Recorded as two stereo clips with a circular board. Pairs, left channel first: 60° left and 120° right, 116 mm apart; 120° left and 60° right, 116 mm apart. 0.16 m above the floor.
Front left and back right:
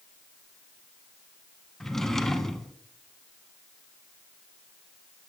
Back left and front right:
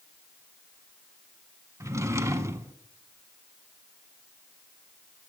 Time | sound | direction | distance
1.8 | a drawer | 25° right | 0.5 m